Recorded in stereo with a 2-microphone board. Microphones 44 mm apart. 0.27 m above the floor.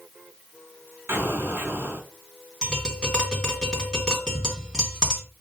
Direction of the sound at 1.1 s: 60° right (ahead or behind).